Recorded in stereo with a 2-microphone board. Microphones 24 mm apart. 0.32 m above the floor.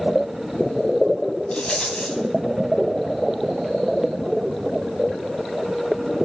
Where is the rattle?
50° left (ahead or behind), 1.3 m.